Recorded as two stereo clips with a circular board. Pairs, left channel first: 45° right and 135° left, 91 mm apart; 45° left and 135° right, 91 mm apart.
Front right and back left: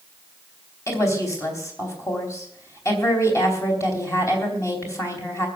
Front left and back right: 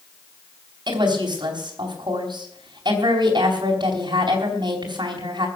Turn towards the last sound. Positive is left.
turn(degrees=-100)